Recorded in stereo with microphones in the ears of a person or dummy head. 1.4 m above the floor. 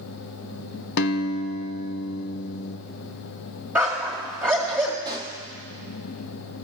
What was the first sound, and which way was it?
A guitar, 60° left (ahead or behind).